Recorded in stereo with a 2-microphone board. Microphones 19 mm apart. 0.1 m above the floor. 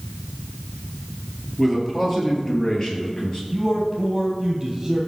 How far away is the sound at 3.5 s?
About 2 m.